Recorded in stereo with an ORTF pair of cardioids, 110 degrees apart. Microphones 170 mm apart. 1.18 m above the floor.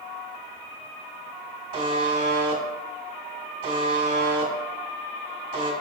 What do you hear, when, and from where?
1.7 s a buzzer: 35° right, 1.3 m